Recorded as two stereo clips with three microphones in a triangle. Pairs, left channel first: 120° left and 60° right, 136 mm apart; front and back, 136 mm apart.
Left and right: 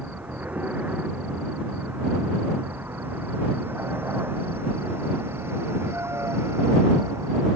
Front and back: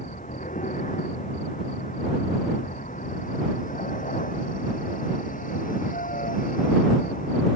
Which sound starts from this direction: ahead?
A vehicle, at 0.0 s.